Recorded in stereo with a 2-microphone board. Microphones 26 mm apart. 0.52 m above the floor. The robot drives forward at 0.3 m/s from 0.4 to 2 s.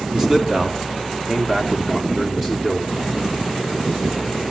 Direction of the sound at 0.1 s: 15° right (ahead or behind).